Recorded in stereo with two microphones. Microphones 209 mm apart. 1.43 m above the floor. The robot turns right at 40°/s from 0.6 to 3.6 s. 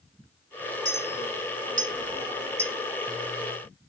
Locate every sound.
0.8 s a clink: 60° right (ahead or behind), 0.6 m; by 2.7 s 10° right (ahead or behind), 0.6 m